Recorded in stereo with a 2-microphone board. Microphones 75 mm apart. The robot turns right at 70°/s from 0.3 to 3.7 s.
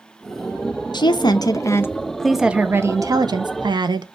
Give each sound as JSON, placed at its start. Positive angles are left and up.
{"t": 0.9, "sound": "a woman speaking", "azimuth_deg": 85, "distance_m": 0.5}